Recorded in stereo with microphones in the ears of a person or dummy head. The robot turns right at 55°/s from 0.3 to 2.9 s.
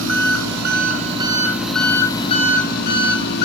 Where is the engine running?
80° right, 3.5 m; by 3.5 s 60° left, 3.5 m.